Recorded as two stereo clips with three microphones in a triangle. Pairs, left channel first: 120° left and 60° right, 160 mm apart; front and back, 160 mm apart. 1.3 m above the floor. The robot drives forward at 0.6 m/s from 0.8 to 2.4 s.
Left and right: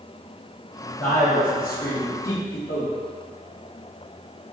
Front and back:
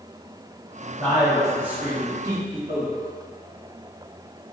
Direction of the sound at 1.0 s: 80° left.